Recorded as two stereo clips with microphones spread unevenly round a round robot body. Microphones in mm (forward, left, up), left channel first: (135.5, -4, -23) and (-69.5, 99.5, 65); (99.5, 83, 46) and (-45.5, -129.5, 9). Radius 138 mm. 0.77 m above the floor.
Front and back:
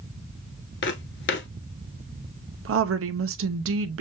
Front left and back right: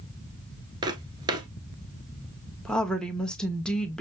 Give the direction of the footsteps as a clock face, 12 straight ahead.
2 o'clock.